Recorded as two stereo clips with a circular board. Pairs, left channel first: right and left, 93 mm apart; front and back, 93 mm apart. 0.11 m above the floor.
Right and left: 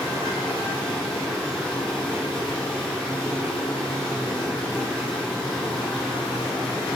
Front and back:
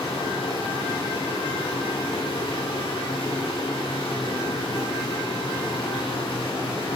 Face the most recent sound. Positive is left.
turn(degrees=-5)